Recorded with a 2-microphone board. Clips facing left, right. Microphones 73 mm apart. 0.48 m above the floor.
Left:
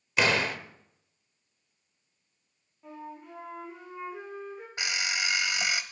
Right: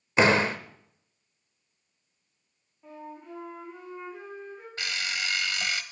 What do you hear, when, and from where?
0.2 s a door slam: 30° right (ahead or behind), 0.9 m
2.8 s a flute: 5° left (ahead or behind), 8 m
4.8 s an alarm clock: 15° left (ahead or behind), 0.9 m